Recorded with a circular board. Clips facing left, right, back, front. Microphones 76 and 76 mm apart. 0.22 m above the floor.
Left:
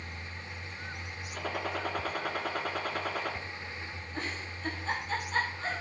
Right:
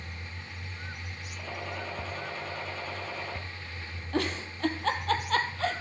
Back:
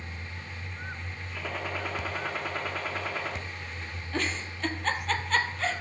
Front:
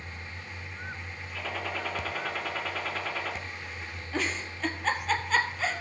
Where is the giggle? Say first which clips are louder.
Right 9 dB, even; 85° right, 1.4 m.